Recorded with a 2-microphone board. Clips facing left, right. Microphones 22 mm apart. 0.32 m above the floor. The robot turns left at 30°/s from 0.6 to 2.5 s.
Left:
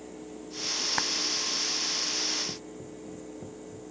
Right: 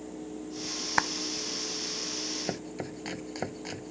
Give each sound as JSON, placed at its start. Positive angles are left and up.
{"t": 1.0, "sound": "a clap", "side_deg": -25}
{"t": 2.5, "sound": "chopping", "side_deg": -80}